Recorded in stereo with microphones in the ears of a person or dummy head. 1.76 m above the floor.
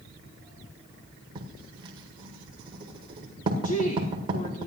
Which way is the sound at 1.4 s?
25° right (ahead or behind).